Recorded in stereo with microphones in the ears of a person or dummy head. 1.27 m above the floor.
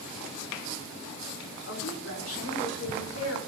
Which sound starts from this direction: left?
A woman speaking, at 1.7 s.